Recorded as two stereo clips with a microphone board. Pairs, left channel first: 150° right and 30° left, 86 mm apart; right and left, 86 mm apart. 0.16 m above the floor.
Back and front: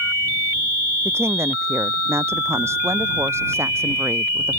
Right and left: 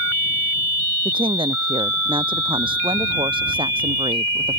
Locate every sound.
1.1 s a woman speaking: 90° left